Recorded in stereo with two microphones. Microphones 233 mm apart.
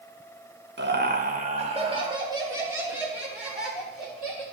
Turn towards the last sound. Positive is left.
turn(degrees=0)  # may be behind; listen again after turning